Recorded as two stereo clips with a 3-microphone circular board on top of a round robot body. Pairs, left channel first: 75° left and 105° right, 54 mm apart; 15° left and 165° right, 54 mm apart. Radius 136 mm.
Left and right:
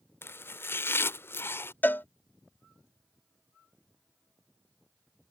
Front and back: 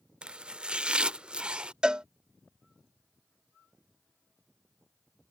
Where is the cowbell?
120° left.